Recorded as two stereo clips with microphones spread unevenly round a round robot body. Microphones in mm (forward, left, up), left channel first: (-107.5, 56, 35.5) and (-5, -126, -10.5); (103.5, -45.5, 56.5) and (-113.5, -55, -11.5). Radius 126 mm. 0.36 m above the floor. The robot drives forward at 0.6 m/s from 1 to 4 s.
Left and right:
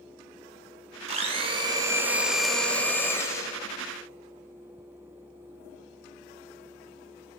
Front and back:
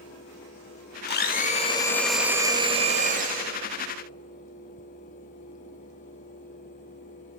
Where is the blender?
40° right, 0.8 m; by 3.6 s 160° right, 1.2 m.